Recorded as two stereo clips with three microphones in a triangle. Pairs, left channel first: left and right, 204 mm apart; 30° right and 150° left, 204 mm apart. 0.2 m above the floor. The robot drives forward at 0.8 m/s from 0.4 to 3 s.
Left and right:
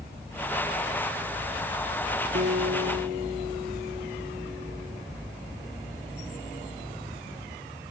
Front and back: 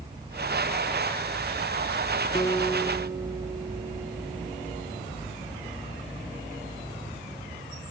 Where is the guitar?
95° right, 0.6 m; by 5.0 s 135° right, 0.9 m.